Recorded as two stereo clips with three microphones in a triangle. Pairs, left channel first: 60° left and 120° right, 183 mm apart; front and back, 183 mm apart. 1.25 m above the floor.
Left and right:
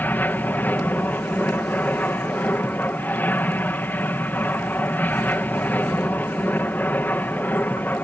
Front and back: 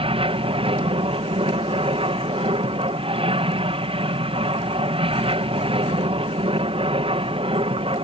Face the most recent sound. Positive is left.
turn(degrees=135)